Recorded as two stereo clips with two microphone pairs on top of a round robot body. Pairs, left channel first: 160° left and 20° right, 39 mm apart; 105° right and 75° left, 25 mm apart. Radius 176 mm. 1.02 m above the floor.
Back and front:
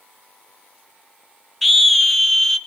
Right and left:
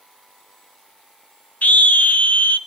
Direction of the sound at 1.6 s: 115° right.